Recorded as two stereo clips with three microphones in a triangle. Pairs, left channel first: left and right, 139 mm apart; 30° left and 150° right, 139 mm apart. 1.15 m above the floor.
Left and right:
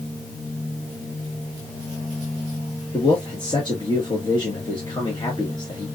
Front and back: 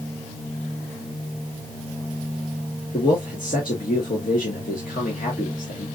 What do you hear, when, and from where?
2.9 s a man speaking: 35° left, 1.2 m